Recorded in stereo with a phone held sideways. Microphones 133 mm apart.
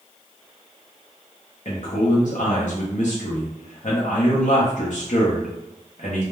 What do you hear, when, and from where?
1.6 s a man speaking: 65° left (ahead or behind), 0.5 m